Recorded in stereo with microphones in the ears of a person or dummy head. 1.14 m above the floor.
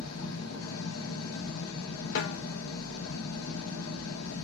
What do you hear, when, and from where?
0.0 s an engine running: 90° left, 1.5 m
2.1 s a snare drum: 80° left, 1.8 m